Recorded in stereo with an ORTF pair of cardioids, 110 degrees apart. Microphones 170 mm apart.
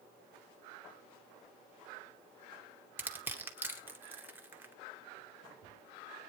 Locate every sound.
3.0 s crushing: 10° right, 2.5 m